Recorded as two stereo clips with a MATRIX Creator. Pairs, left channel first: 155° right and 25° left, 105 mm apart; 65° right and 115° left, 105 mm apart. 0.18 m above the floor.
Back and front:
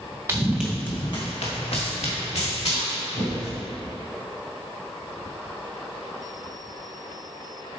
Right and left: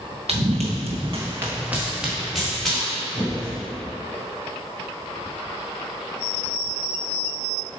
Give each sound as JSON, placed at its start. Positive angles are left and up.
{"t": 0.3, "sound": "running footsteps", "azimuth_deg": 85, "distance_m": 1.0}